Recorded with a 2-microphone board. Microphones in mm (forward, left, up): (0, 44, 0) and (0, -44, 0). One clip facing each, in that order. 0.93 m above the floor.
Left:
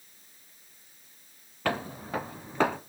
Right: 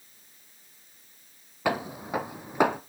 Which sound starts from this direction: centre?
Footsteps, at 1.6 s.